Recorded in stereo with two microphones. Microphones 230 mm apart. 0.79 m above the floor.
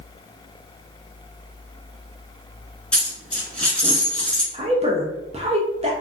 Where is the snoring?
No snoring in this recording.